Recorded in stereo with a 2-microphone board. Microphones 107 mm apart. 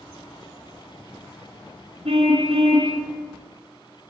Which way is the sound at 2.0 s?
70° right (ahead or behind).